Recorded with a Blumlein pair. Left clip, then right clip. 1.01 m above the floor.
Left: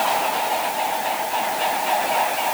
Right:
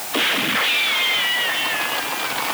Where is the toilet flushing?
No toilet flushing in this recording.